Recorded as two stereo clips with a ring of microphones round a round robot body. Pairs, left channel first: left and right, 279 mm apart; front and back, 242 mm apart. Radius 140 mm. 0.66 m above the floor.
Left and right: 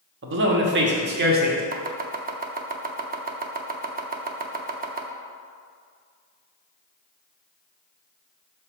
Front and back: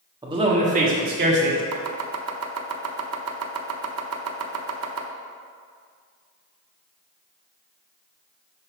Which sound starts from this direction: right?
A man speaking, at 0.2 s.